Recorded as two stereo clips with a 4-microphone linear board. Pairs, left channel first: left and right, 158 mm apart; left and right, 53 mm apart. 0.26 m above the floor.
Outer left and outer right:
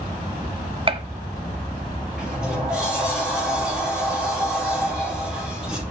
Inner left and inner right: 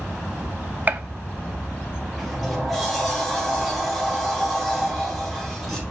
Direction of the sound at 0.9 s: 35° right (ahead or behind).